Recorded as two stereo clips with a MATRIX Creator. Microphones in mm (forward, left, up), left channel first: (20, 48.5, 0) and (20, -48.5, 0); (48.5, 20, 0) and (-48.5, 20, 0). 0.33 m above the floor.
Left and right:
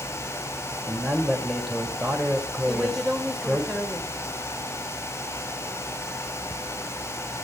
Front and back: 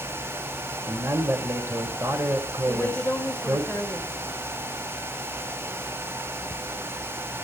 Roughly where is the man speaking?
Behind.